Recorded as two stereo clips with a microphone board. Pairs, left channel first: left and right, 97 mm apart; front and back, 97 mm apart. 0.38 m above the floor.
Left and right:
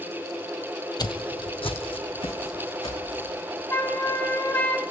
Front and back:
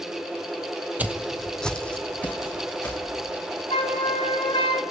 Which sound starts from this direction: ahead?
A flute, at 3.7 s.